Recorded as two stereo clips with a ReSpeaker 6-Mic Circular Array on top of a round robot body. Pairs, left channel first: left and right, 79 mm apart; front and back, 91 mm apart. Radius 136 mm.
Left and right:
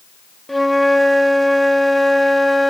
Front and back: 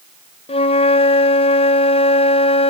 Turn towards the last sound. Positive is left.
turn(degrees=0)